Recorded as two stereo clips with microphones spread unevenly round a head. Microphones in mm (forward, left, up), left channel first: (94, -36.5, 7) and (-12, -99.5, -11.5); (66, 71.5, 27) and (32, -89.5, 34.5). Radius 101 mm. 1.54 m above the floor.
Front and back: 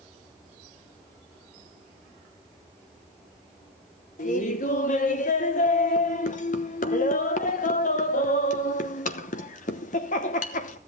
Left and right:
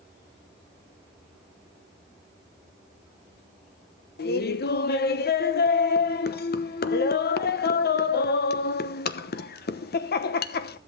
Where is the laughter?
55° left, 1.0 m.